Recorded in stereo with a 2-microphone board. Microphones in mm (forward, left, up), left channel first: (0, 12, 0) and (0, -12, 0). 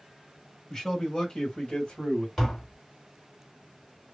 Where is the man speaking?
15° left (ahead or behind), 1.3 m; by 2.3 s 45° left (ahead or behind), 1.5 m.